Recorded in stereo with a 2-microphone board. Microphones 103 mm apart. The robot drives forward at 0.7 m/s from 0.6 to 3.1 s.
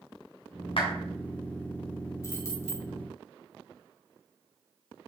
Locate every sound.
0.8 s a clap: 60° left (ahead or behind), 3 m; by 0.9 s 65° left (ahead or behind), 3 m
2.2 s keys jangling: 30° left (ahead or behind), 1.8 m; by 2.9 s 25° left (ahead or behind), 2 m